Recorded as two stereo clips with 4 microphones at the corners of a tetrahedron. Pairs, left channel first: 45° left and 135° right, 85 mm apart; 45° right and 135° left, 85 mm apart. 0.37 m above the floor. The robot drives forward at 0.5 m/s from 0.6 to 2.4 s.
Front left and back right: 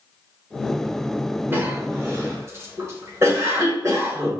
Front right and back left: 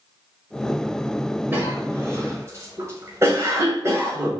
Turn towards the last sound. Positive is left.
turn(degrees=180)